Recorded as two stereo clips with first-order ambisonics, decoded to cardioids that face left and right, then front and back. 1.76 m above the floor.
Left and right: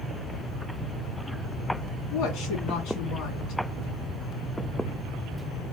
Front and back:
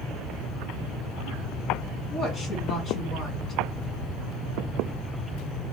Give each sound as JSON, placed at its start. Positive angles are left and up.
{"t": 2.1, "sound": "a woman speaking", "azimuth_deg": 65, "distance_m": 2.5}